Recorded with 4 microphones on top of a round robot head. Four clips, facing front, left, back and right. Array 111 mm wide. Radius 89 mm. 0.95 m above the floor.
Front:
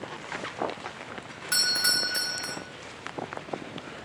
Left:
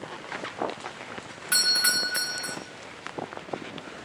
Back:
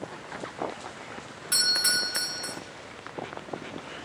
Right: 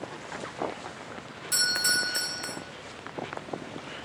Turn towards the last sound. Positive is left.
turn(degrees=65)